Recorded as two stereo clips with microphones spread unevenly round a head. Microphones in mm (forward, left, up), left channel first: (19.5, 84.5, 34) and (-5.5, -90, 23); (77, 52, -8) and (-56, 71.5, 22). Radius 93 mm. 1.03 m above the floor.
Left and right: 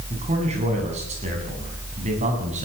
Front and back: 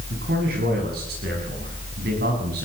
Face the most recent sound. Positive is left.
turn(degrees=-150)